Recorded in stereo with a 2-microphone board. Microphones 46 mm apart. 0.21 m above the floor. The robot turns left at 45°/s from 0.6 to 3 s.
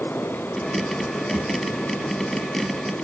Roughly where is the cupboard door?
I don't hear a cupboard door.